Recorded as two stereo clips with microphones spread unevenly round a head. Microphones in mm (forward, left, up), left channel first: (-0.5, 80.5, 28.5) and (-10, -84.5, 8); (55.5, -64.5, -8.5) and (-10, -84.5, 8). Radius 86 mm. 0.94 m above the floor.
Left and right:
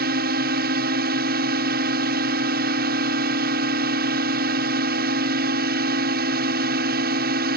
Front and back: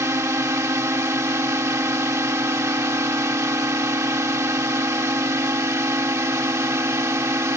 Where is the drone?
120° right.